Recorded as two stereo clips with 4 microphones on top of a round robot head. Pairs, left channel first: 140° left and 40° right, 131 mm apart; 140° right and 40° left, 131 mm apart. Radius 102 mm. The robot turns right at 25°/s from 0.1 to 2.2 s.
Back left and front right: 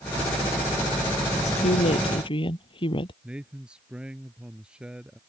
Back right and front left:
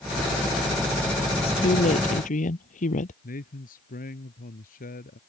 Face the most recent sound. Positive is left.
turn(degrees=-125)